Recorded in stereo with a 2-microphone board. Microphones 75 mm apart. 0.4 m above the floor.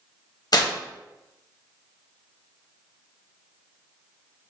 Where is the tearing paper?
55° left (ahead or behind), 0.6 m.